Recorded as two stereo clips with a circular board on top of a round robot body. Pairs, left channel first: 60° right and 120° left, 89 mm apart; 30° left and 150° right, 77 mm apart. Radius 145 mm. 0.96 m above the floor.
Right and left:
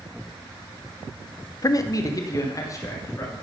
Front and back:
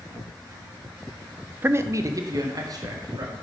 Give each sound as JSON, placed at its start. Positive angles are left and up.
{"t": 1.6, "sound": "a man speaking", "azimuth_deg": -90, "distance_m": 0.5}